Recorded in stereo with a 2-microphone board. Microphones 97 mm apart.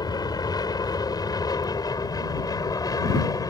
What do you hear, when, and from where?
0.0 s an aircraft: 45° left (ahead or behind); by 3.5 s 40° left (ahead or behind)